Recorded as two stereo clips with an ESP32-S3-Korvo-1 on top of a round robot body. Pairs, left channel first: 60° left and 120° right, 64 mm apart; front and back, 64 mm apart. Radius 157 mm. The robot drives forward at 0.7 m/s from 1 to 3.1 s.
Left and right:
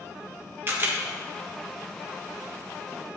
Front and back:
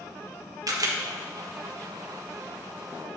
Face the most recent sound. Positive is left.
turn(degrees=-175)